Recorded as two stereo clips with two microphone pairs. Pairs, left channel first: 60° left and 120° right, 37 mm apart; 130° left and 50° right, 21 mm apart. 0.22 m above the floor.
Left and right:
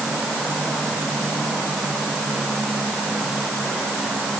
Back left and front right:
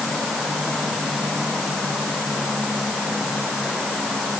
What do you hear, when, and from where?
Only background noise.